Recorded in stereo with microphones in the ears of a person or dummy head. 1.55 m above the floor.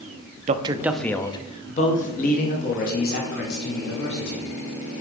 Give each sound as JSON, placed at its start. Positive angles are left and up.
{"t": 0.5, "sound": "a man speaking", "side_deg": -35, "distance_m": 0.6}